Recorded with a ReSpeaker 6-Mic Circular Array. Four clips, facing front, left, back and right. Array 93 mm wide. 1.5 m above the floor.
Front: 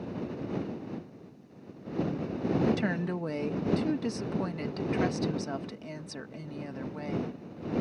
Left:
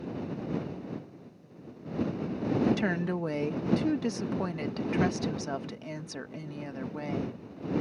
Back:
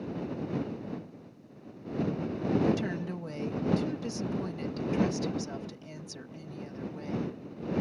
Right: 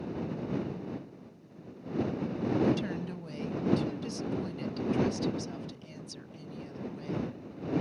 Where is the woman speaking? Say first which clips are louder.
Left 2 dB, front 1 dB; 65° left.